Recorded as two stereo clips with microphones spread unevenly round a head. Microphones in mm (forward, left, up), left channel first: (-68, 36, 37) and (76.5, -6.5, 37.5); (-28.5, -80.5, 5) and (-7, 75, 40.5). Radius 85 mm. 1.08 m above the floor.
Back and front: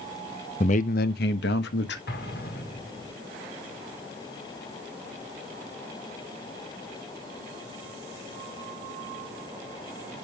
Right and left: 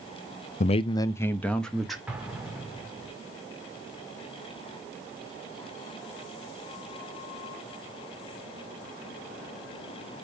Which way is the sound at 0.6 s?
140° right.